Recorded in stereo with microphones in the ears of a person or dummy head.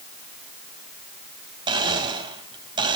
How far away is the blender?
About 3 m.